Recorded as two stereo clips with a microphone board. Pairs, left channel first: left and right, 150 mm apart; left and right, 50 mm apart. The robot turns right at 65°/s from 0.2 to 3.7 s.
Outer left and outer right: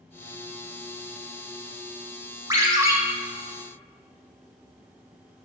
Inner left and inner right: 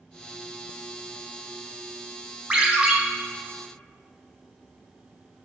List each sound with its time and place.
2.5 s a ringtone: 25° right (ahead or behind), 0.6 m; by 3.0 s 20° right (ahead or behind), 0.6 m